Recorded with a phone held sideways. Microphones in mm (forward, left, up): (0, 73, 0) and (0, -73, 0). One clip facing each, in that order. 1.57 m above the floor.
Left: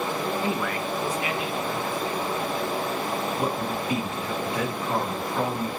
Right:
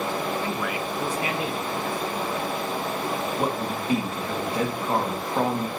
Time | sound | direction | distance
0.4 | a man speaking | 25° left (ahead or behind) | 0.6 m
3.4 | a man speaking | 35° right (ahead or behind) | 2.5 m